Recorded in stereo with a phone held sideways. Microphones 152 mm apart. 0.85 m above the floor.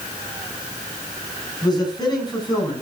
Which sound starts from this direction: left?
A man speaking, at 1.6 s.